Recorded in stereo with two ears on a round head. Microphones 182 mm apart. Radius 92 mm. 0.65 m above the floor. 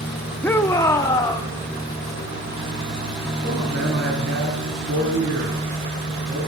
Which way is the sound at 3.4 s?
35° right (ahead or behind).